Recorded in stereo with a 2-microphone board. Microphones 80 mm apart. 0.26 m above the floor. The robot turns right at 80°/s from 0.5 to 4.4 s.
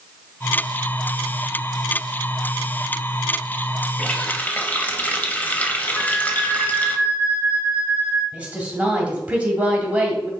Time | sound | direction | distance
4.0 | a running tap | 15° left (ahead or behind) | 0.6 m
6.0 | a flute | 15° right (ahead or behind) | 1.1 m
8.3 | a woman speaking | 15° right (ahead or behind) | 1.5 m